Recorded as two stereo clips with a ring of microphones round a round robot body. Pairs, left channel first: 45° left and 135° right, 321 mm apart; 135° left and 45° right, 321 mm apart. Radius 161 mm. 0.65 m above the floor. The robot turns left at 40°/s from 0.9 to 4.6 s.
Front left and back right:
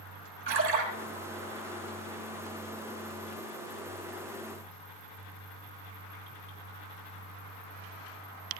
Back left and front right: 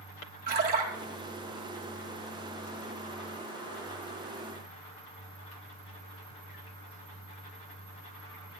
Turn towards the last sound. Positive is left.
turn(degrees=100)